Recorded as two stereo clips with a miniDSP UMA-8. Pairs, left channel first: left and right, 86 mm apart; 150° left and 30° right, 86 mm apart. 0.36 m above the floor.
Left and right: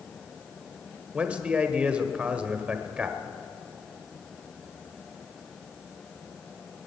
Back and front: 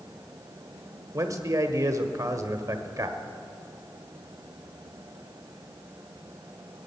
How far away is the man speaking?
About 1.1 m.